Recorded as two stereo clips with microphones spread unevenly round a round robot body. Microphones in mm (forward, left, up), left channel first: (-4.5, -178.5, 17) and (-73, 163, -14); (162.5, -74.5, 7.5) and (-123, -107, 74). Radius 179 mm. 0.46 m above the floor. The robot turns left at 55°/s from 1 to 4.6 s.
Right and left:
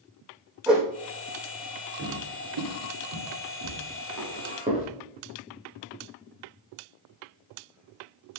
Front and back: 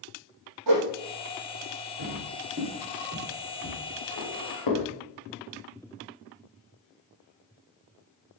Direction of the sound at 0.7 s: 170° right.